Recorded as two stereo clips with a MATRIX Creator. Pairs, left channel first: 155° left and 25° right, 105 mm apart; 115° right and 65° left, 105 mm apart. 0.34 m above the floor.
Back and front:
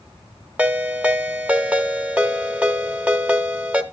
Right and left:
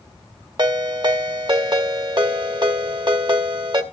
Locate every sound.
0.6 s a ringtone: 50° left, 0.9 m